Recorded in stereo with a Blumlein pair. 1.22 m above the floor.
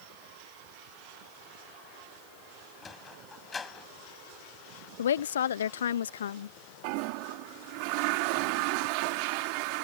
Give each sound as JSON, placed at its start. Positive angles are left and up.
{"t": 2.8, "sound": "a sliding door", "azimuth_deg": 15}
{"t": 5.0, "sound": "a woman speaking", "azimuth_deg": 65}
{"t": 6.8, "sound": "a toilet flushing", "azimuth_deg": -45}